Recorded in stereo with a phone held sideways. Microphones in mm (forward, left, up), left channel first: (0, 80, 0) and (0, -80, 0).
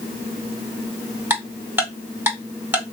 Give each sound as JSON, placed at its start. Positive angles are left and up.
{"t": 1.3, "sound": "ticking", "side_deg": -15, "distance_m": 1.9}